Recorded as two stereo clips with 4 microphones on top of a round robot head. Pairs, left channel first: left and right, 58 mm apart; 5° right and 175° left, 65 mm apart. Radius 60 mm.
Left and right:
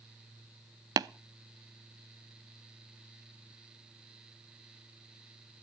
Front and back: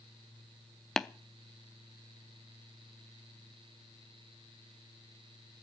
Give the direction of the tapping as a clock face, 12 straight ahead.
3 o'clock.